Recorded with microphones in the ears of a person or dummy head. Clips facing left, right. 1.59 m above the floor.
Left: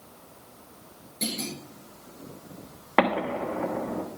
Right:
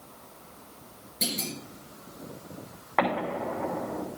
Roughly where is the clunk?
Centre.